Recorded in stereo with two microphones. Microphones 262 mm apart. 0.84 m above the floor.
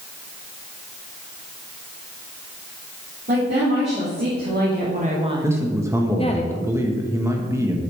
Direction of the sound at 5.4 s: 10° right (ahead or behind).